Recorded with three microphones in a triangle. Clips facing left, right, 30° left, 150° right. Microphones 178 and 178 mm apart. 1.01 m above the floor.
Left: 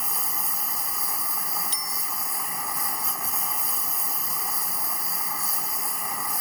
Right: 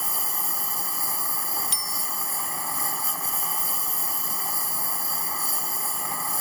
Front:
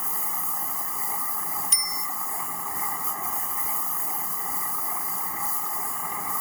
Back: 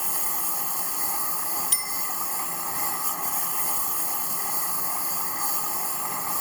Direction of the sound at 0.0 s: 150° right.